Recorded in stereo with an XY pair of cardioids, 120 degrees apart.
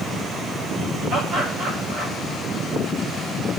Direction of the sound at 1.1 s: 55° right.